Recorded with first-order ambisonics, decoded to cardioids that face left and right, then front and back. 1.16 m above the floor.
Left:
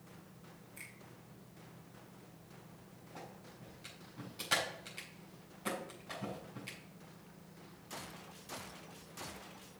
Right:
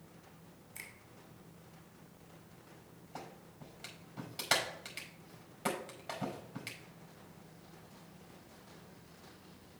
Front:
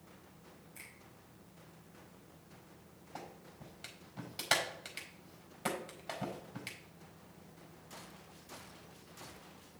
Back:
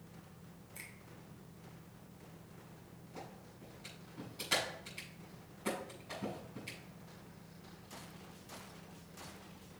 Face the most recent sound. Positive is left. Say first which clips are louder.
# right 3 dB, front 2 dB
turn(degrees=-45)